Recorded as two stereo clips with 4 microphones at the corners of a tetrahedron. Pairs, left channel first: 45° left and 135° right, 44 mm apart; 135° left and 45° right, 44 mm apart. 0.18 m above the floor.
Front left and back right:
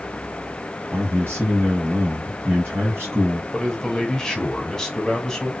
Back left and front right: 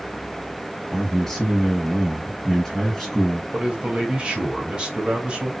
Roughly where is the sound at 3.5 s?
Ahead.